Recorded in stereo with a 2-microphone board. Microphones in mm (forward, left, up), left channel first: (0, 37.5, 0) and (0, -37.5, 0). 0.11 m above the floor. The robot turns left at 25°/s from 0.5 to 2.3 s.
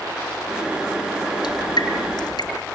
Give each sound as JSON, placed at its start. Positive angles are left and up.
{"t": 1.4, "sound": "dripping", "side_deg": 75, "distance_m": 3.0}